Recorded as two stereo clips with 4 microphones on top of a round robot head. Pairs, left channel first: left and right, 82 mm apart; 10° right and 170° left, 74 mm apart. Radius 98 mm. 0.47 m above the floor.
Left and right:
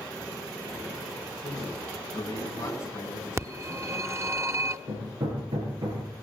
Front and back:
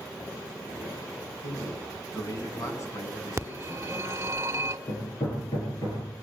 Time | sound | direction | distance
1.4 | a man speaking | 30° left | 5 m
3.4 | a phone ringing | 140° right | 1.3 m
4.9 | hammering | 55° right | 8 m